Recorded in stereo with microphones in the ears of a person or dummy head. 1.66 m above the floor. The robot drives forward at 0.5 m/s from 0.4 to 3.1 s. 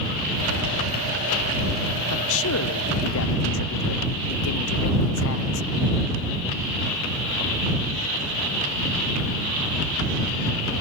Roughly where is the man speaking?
Left.